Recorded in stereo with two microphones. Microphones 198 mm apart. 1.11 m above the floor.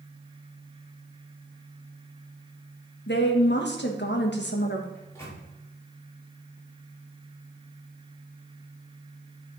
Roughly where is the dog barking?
No dog barking in this recording.